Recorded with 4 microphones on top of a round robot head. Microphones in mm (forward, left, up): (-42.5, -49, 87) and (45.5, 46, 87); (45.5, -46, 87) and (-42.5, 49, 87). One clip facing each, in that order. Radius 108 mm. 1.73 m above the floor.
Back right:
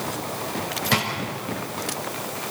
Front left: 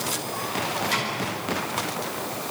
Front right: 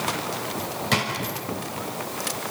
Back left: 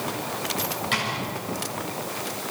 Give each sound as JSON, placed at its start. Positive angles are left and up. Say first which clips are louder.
{"t": 0.9, "sound": "a drawer", "louder": "back right 4 dB, front right 6 dB", "azimuth_deg": -100, "distance_m": 6.0}